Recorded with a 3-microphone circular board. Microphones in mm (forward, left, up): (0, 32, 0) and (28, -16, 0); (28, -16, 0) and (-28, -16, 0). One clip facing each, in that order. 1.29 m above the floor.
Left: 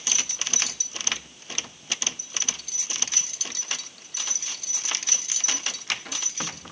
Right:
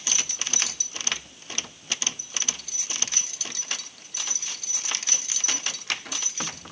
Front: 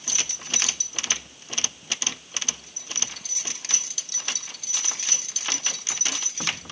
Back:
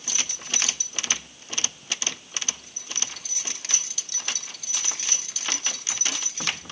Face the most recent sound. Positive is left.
No sound to turn to.